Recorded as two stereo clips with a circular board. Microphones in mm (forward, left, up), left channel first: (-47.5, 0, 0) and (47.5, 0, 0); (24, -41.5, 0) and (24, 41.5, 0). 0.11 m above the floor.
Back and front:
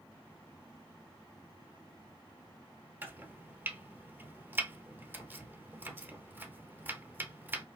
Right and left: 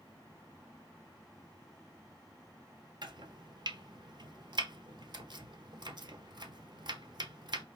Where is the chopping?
65° left, 0.8 m.